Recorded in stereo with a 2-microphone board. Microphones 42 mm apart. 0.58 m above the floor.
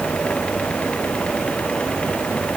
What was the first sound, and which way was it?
Only background noise.